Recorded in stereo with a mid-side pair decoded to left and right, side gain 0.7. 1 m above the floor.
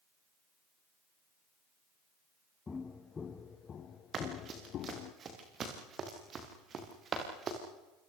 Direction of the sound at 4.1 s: 35° right.